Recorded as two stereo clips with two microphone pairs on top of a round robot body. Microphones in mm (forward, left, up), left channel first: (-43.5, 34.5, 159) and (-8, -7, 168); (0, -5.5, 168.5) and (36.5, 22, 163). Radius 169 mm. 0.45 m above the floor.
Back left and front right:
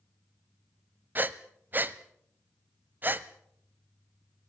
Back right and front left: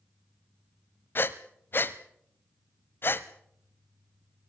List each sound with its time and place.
1.1 s breathing: 105° right, 0.7 m